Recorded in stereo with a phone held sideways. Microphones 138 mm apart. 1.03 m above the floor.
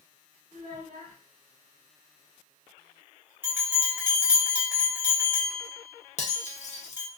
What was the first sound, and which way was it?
A child speaking, 75° right (ahead or behind).